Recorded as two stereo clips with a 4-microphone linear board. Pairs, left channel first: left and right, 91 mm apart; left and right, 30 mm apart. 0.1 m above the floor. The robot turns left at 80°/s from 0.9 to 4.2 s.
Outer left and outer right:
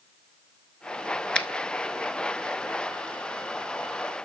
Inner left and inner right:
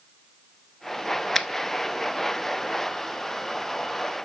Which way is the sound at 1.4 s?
10° left (ahead or behind).